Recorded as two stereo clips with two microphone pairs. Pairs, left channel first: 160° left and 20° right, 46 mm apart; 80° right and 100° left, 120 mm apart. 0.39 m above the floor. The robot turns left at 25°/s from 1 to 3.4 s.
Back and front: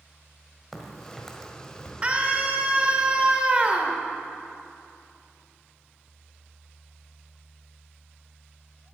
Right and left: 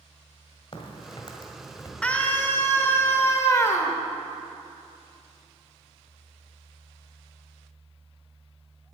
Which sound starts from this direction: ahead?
A scream, at 2.0 s.